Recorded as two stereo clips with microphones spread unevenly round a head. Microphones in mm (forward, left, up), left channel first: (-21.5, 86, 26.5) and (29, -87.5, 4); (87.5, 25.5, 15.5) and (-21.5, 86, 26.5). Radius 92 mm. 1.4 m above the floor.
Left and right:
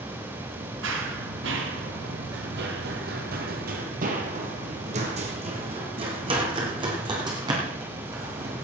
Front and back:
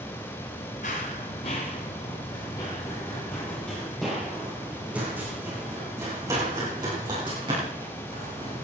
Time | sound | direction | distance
0.8 | running footsteps | 70° right | 2.5 m